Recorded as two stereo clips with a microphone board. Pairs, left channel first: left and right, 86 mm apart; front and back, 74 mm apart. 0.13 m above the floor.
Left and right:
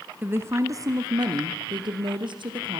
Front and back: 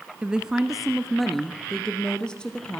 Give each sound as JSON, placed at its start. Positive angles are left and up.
{"t": 0.2, "sound": "a woman speaking", "azimuth_deg": -125, "distance_m": 1.2}